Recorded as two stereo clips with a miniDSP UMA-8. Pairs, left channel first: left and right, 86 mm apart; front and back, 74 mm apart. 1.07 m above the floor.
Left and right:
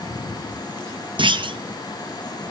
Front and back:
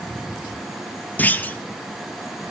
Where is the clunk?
70° right, 0.6 m.